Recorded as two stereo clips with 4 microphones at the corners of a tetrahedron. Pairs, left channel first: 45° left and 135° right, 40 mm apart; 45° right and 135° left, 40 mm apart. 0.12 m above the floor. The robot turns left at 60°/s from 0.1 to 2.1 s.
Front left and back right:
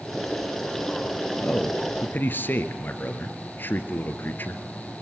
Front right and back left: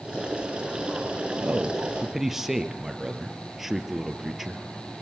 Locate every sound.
1.4 s a man speaking: 95° left, 2.0 m; by 5.0 s 55° left, 2.0 m